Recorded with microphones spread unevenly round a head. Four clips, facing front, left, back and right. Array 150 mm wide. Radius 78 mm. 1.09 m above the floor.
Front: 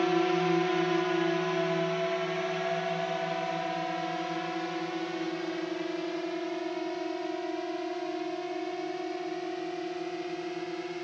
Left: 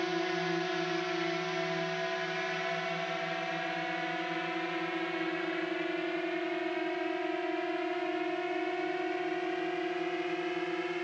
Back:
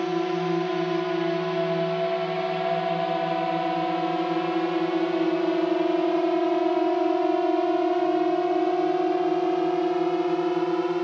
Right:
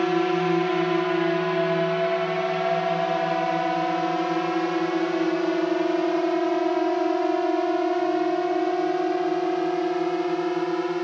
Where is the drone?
95° right; by 11.0 s 145° right.